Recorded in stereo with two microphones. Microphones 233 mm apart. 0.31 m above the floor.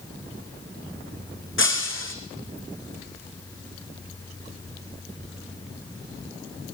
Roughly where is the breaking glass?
Left.